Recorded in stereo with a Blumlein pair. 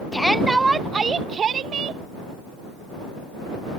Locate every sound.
0.1 s a shout: 5° left; by 2.0 s 25° right